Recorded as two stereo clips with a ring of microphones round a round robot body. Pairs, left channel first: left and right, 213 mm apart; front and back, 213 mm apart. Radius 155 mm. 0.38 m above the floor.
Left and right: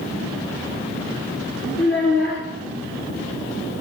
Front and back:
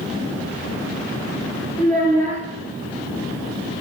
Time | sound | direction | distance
1.8 | a child speaking | 125° left | 4.5 m